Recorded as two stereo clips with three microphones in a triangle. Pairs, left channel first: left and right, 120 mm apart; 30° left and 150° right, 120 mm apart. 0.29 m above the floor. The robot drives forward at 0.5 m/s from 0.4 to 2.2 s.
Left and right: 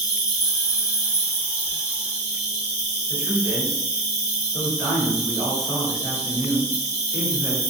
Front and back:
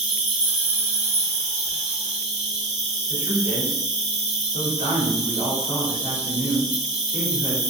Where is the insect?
135° left, 0.9 m; by 7.7 s 160° left, 1.6 m.